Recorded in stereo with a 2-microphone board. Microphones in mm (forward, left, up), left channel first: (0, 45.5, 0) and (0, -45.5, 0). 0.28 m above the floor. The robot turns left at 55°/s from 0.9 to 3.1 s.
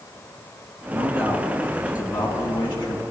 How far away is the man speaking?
About 3 m.